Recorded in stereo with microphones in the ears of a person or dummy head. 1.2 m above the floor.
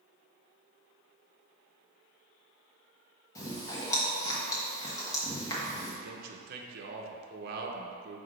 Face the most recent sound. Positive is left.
turn(degrees=-50)  # may be behind; listen again after turning